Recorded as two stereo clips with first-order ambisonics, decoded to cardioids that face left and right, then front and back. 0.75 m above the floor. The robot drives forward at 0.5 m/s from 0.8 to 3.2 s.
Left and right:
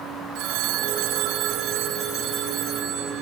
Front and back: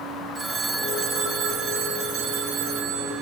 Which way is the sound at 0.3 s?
110° right.